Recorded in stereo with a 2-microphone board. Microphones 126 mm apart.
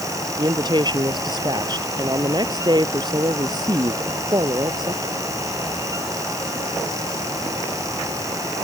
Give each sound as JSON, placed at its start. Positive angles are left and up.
{"t": 0.4, "sound": "a woman speaking", "side_deg": -35}